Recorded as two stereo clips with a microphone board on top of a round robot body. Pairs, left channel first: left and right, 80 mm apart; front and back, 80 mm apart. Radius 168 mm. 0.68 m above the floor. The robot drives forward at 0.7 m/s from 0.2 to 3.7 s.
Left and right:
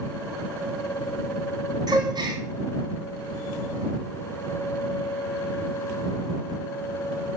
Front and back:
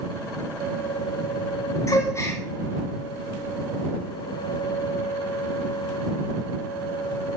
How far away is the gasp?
About 3 m.